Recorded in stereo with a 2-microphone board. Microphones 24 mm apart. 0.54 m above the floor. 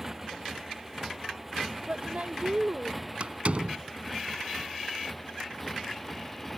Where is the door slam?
55° right (ahead or behind).